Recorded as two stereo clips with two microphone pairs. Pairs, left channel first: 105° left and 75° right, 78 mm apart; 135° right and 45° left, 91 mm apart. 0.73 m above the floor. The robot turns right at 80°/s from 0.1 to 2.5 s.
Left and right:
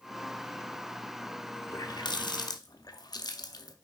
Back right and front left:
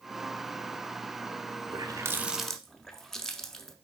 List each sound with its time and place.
1.7 s a running tap: 70° left, 0.7 m; by 3.8 s 135° left, 0.7 m